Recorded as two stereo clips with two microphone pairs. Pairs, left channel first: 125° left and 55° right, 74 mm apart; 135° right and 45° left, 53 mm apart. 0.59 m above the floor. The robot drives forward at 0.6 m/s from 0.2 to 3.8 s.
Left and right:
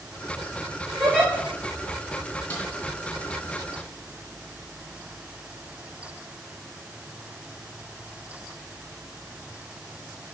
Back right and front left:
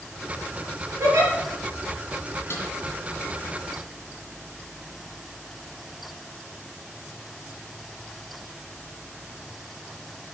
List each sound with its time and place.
1.0 s a giggle: 30° left, 2.5 m; by 1.3 s 35° left, 2.5 m
2.5 s a snare drum: 170° right, 2.5 m